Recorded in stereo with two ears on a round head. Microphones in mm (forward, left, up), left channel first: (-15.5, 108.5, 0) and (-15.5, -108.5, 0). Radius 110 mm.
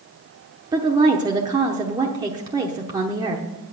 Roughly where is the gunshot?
I don't hear a gunshot.